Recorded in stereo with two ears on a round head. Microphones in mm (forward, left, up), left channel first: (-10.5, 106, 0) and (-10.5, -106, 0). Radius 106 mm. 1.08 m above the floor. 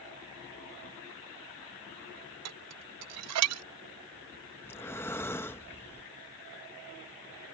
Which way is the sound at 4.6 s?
10° left (ahead or behind).